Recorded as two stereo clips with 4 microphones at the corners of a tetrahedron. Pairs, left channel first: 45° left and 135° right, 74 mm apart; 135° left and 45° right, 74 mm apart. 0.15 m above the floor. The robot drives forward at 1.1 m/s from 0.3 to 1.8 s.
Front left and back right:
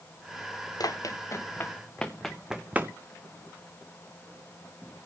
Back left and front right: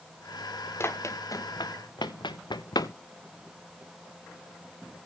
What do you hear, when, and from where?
0.8 s running footsteps: 75° left, 2 m; by 2.9 s 165° left, 0.7 m